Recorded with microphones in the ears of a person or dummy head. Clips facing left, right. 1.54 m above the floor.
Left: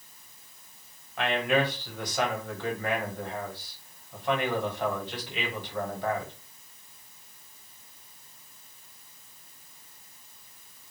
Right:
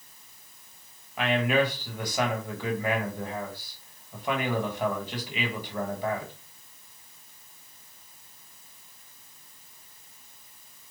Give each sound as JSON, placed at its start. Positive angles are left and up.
{"t": 1.2, "sound": "a man speaking", "side_deg": -10, "distance_m": 1.2}